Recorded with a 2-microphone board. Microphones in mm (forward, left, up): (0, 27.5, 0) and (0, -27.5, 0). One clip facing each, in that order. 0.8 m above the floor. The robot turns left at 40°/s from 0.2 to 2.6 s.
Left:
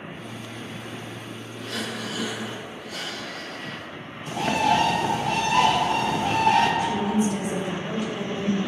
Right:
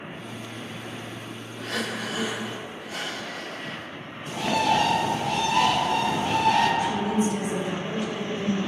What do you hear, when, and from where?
1.6 s breathing: 120° right, 0.6 m; by 3.9 s 160° right, 0.6 m
4.3 s a bird: 40° left (ahead or behind), 1.0 m
6.8 s a woman speaking: 45° left (ahead or behind), 2.0 m